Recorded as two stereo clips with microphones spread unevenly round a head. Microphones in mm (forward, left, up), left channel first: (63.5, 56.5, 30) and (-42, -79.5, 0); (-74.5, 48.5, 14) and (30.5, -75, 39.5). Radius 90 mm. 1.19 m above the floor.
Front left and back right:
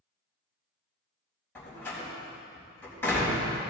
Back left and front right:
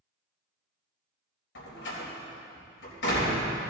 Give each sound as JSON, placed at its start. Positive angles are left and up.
{"t": 1.6, "sound": "a door slam", "azimuth_deg": 130, "distance_m": 4.0}